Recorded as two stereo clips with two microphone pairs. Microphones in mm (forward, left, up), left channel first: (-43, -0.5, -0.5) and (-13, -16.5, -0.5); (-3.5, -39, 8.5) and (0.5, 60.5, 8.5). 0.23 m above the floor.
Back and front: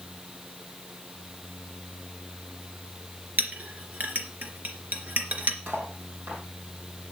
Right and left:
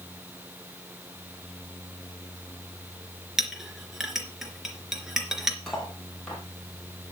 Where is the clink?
5° left, 3 m.